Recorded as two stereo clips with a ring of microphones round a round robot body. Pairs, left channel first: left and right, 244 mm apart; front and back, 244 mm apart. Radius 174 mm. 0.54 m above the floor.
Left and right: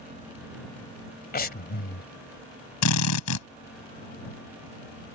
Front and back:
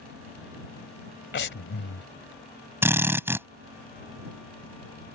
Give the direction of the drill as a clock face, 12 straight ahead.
9 o'clock.